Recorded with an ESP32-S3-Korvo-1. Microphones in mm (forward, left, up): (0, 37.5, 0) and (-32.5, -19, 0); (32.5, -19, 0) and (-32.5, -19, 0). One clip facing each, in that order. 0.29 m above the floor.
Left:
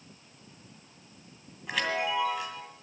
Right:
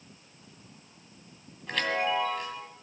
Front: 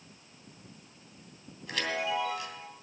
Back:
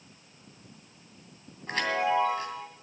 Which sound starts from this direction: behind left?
A chime, at 1.7 s.